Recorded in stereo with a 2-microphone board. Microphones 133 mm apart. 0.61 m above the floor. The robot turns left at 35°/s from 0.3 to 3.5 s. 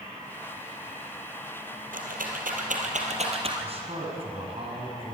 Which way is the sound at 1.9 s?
80° right.